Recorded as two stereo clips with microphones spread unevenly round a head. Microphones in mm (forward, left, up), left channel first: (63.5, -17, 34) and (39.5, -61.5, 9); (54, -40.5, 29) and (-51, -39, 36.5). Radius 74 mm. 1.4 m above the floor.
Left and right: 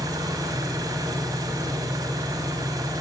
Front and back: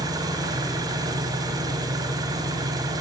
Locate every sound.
0.0 s an engine running: 130° right, 4.5 m